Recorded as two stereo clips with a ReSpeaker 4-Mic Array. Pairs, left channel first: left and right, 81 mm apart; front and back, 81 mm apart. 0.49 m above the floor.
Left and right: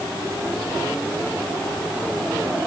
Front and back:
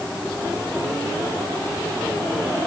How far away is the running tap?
I don't hear a running tap.